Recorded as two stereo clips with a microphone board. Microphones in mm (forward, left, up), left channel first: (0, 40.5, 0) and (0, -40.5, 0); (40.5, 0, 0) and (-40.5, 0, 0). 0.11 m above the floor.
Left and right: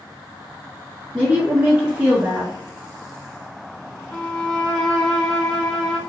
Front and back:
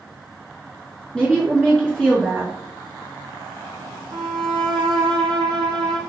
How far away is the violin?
About 0.7 m.